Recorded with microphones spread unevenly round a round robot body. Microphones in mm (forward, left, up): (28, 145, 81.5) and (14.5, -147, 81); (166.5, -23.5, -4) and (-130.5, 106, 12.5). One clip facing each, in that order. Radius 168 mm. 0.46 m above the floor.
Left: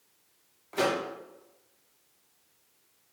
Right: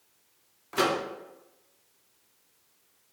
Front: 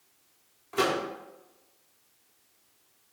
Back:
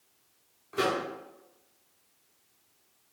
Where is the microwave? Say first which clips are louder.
Right 1 dB, front 2 dB; 90° right, 0.7 m.